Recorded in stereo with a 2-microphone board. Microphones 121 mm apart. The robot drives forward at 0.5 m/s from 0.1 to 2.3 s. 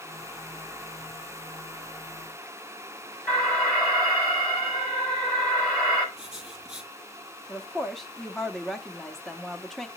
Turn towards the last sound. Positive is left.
turn(degrees=5)  # may be behind; listen again after turning